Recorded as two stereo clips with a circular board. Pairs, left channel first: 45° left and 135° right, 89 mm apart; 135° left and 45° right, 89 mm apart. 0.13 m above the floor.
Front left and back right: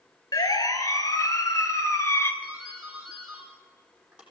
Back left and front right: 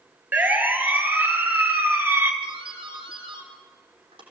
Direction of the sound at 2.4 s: 55° right.